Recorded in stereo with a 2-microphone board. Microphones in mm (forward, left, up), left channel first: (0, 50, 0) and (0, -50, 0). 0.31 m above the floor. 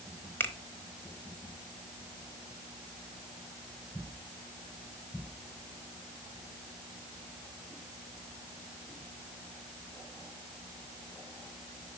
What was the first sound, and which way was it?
A finger snap, 20° left (ahead or behind).